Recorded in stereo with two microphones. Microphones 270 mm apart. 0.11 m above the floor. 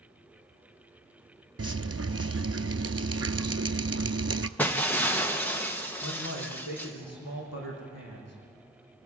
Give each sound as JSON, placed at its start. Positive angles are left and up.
{"t": 1.6, "sound": "dripping", "side_deg": -60, "distance_m": 0.7}
{"t": 4.6, "sound": "breaking glass", "side_deg": 5, "distance_m": 1.8}
{"t": 6.0, "sound": "a man speaking", "side_deg": 65, "distance_m": 5.5}